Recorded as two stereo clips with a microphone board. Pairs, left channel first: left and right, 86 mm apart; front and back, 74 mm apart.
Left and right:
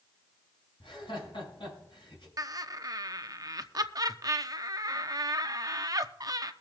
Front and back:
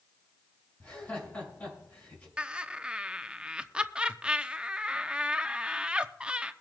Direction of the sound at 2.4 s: 105° right.